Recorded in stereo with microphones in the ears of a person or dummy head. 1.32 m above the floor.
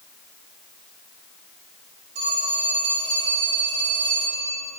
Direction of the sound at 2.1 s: 30° right (ahead or behind).